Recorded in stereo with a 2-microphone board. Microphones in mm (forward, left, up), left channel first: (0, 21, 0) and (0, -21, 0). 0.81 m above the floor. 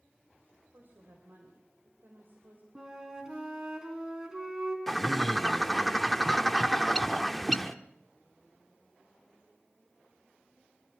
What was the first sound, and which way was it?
A woman speaking, 55° right (ahead or behind).